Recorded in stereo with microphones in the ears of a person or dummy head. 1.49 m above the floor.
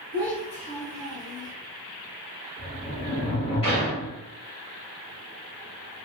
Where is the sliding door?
25° left (ahead or behind), 1.5 m.